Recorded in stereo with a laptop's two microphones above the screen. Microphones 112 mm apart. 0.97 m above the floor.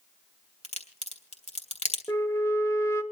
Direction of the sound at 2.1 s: 25° left (ahead or behind).